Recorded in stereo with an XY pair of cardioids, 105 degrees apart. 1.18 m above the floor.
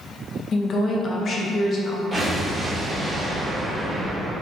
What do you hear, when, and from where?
0.5 s a woman speaking: 45° left, 0.8 m
2.1 s an explosion: 15° right, 1.9 m